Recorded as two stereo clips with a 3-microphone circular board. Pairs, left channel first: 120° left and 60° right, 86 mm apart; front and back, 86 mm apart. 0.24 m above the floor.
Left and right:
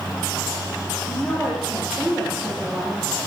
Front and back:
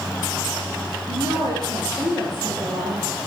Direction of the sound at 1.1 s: 150° right.